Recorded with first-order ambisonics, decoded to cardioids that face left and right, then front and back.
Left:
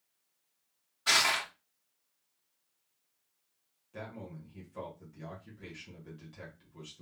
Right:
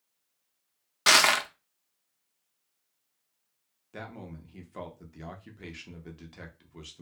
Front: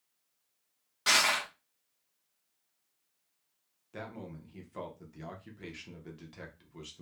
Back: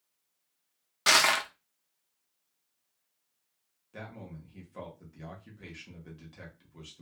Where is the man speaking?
70° right, 0.6 m.